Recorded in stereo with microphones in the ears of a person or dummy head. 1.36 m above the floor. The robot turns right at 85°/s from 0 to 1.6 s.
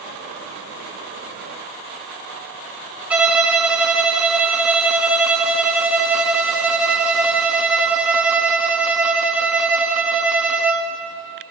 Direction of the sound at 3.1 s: 5° right (ahead or behind).